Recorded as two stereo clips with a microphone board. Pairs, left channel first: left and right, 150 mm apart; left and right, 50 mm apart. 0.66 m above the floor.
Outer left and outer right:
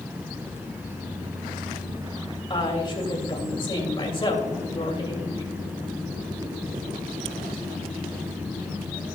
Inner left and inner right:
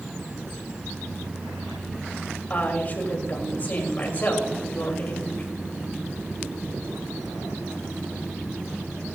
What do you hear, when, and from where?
2.5 s a woman speaking: 35° left (ahead or behind), 3 m